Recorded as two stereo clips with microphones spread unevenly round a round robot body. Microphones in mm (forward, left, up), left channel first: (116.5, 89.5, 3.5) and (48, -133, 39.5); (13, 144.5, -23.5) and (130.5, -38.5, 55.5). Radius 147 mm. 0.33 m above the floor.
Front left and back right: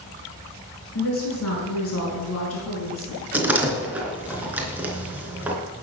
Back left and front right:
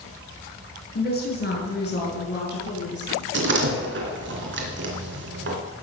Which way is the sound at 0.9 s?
95° left.